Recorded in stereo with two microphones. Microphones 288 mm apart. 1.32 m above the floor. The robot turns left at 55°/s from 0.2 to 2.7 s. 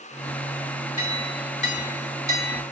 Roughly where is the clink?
Ahead left.